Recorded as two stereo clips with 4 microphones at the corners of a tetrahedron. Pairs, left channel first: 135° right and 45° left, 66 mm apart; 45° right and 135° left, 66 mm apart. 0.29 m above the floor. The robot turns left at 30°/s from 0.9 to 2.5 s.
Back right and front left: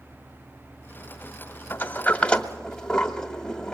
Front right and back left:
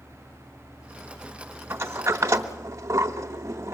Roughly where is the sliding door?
Behind.